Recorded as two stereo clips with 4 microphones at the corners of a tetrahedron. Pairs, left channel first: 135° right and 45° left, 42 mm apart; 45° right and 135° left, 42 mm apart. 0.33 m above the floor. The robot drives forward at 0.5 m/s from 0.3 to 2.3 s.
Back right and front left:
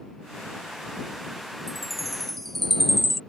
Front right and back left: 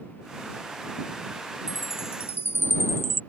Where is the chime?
40° right; by 3.2 s 45° right.